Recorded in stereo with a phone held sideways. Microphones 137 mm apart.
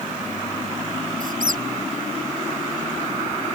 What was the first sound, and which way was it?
A squeak, 80° right.